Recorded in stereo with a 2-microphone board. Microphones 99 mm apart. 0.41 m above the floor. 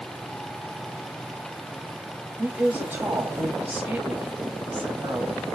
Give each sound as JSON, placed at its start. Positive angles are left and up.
{"t": 2.4, "sound": "a woman speaking", "side_deg": -20, "distance_m": 2.0}